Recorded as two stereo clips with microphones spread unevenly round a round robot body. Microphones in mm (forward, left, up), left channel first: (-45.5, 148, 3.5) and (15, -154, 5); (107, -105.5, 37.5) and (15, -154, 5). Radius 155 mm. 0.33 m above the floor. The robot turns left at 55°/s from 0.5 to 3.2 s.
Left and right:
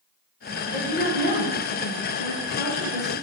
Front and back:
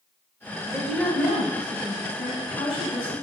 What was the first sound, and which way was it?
A woman speaking, 140° left.